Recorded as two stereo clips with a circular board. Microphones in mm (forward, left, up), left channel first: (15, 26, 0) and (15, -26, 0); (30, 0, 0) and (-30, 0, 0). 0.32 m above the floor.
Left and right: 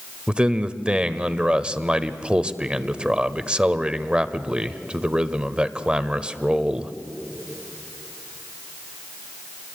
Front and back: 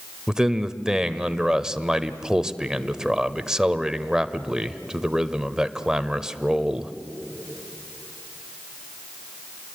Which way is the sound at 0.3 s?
120° right.